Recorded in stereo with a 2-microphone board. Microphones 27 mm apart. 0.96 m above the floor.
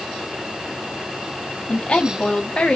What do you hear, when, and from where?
1.7 s a woman speaking: 40° left (ahead or behind), 1.0 m